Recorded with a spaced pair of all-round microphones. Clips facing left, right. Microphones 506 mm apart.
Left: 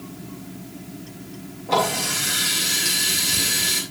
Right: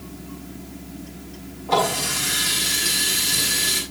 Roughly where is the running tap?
Right.